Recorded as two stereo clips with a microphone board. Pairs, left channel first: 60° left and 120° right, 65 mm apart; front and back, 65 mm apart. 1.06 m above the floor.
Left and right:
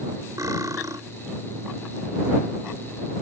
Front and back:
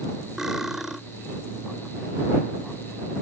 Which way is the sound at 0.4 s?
100° right.